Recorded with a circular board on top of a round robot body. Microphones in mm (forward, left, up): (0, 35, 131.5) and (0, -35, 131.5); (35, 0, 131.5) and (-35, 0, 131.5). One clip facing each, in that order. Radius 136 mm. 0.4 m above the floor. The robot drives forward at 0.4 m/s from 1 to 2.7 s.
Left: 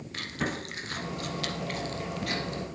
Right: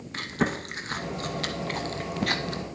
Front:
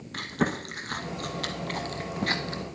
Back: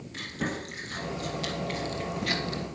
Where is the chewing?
30° right, 1.1 m; by 2.6 s 65° right, 0.7 m.